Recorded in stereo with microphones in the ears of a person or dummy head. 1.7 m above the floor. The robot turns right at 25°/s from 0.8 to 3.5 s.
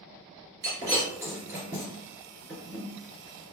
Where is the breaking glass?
20° right (ahead or behind), 1.8 m; by 2.9 s 5° left (ahead or behind), 1.8 m.